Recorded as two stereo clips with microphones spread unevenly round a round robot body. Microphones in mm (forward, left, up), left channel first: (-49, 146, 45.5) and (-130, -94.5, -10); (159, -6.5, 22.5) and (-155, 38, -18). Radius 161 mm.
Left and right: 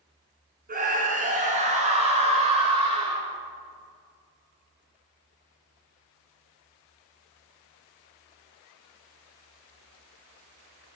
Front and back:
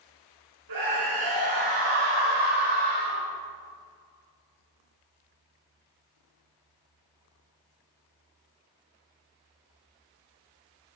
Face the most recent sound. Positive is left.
turn(degrees=180)